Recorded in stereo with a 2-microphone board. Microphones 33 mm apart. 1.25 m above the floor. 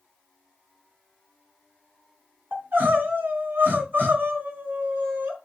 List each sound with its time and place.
2.5 s crying: 65° right (ahead or behind), 3 m